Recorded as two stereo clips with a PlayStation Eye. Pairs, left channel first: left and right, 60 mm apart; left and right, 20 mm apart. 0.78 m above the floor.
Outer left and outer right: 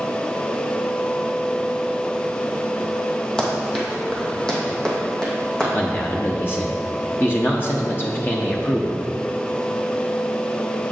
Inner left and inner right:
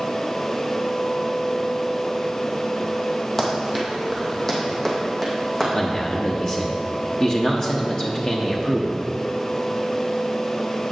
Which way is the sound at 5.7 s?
35° left (ahead or behind).